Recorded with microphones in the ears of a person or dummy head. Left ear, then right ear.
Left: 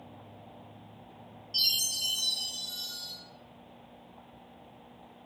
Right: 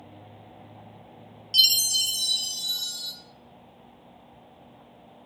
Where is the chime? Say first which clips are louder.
Right 8 dB; 60° right (ahead or behind), 0.8 m.